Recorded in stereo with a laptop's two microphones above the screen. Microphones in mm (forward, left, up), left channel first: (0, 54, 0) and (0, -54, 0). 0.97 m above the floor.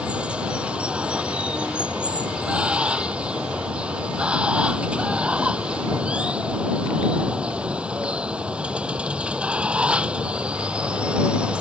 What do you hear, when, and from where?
0.0 s running water: 10° right (ahead or behind)